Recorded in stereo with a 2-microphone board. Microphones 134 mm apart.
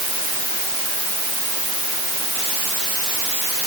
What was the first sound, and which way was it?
Only background noise.